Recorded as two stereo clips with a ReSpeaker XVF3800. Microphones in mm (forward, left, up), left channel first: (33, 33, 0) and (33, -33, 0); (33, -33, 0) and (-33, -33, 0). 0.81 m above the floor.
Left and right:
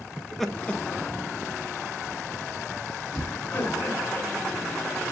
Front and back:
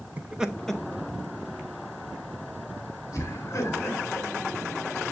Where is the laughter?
160° right, 0.8 m; by 4.3 s 40° left, 4 m.